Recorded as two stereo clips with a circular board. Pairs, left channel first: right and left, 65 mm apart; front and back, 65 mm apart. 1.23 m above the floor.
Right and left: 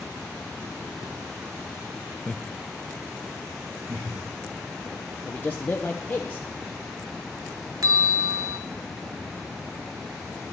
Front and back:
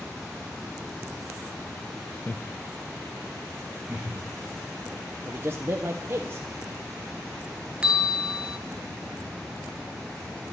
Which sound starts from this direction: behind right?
A man speaking, at 5.2 s.